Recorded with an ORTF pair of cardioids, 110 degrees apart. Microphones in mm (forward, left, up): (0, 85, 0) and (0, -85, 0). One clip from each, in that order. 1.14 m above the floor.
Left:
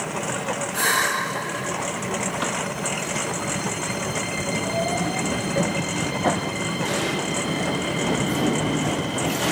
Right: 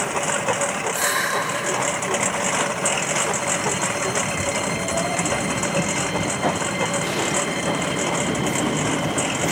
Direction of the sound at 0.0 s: 35° right.